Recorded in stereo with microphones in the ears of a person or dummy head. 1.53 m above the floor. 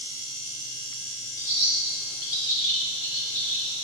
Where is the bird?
35° left (ahead or behind), 1.4 m.